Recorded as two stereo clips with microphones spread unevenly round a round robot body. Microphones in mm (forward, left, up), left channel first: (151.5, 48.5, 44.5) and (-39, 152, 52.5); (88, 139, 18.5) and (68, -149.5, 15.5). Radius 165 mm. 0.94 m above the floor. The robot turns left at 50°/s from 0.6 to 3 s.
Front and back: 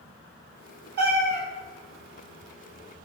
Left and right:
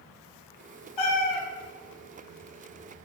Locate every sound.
1.0 s a cat meowing: 110° left, 0.8 m; by 1.4 s 90° left, 0.8 m